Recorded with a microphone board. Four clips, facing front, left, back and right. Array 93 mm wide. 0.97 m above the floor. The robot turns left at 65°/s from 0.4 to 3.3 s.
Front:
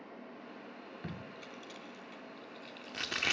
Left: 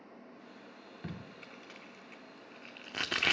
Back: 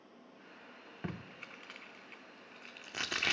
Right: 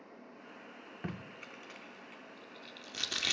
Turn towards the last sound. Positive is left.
turn(degrees=80)